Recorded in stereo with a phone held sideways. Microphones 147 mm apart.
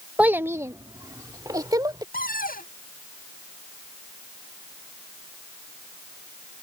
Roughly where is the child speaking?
Centre.